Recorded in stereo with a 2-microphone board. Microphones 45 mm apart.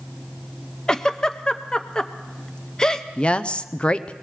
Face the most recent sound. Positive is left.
turn(degrees=25)  # may be behind; listen again after turning